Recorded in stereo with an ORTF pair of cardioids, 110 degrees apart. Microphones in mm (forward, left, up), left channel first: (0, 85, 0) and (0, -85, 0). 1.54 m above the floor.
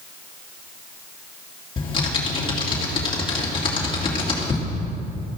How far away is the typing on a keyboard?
About 3 m.